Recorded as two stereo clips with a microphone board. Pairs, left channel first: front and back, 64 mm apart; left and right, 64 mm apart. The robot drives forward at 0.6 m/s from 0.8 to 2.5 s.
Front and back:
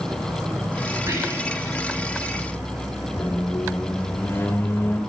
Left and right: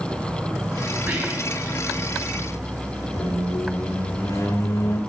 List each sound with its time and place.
0.0 s an insect: 150° right, 4.5 m; by 5.1 s 155° right, 5.5 m
1.1 s whispering: 150° right, 5.5 m
3.1 s a squeak: 55° left, 1.5 m